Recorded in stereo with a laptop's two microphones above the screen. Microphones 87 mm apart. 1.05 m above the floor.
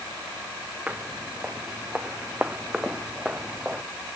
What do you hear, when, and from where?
0.9 s footsteps: 15° right (ahead or behind)